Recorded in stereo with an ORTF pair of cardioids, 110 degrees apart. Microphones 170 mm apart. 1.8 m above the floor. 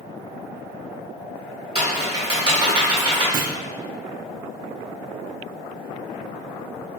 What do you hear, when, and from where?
1.8 s typing on a keyboard: 30° right, 1.6 m
3.3 s a clunk: 60° right, 0.5 m